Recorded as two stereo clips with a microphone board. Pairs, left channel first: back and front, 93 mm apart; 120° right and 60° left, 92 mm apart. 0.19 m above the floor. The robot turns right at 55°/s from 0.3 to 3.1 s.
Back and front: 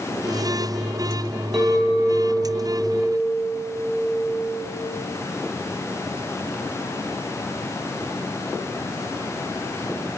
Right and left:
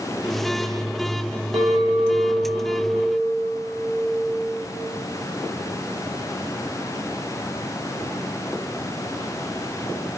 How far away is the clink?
About 2.5 m.